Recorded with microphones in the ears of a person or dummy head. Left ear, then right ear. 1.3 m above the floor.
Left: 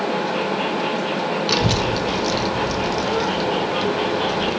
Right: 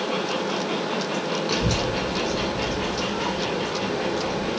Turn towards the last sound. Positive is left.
turn(degrees=70)  # may be behind; listen again after turning